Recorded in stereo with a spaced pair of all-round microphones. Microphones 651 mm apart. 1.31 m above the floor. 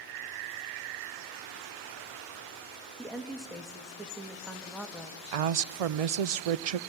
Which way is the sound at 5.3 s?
65° right (ahead or behind).